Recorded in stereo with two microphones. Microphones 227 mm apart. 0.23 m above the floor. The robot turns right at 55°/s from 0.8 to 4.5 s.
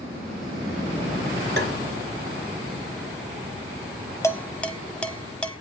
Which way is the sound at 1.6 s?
50° right (ahead or behind).